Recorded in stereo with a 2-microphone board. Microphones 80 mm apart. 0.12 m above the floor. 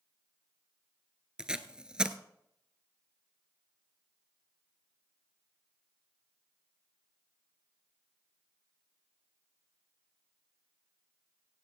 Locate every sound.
1.4 s tape being pulled: 10° right (ahead or behind), 0.8 m